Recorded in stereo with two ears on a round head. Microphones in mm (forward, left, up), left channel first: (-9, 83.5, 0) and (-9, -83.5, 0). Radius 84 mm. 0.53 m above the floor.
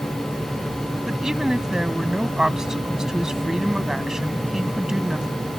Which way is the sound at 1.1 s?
5° right (ahead or behind).